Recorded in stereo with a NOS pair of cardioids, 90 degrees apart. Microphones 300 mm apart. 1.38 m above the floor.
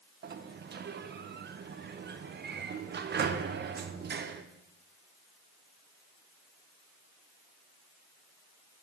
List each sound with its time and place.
0.2 s a sliding door: 35° right, 0.7 m